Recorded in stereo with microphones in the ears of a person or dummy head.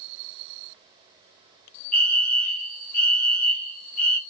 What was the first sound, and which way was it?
A fire alarm, 5° left (ahead or behind).